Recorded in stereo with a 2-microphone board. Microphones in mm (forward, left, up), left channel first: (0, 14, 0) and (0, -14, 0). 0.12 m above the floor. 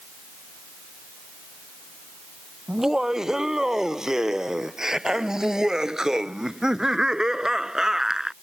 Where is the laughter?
20° right (ahead or behind).